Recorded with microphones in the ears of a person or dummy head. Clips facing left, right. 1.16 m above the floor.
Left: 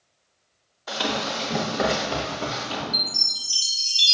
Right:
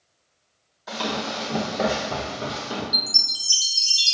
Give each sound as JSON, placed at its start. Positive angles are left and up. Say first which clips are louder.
{"t": 0.9, "sound": "running footsteps", "louder": "left 1 dB", "side_deg": 0, "distance_m": 1.8}
{"t": 2.9, "sound": "a chime", "louder": "even", "side_deg": -75, "distance_m": 0.9}